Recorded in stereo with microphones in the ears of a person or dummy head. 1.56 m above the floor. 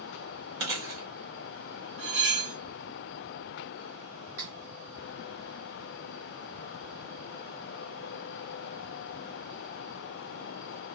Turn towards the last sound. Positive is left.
turn(degrees=-40)  # may be behind; listen again after turning